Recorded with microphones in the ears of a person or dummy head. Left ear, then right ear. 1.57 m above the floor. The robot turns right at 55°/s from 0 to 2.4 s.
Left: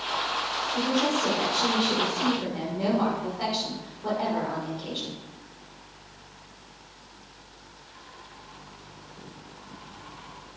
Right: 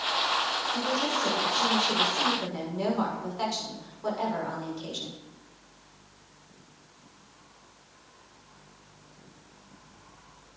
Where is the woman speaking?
175° left, 6 m; by 5.2 s 95° right, 6 m.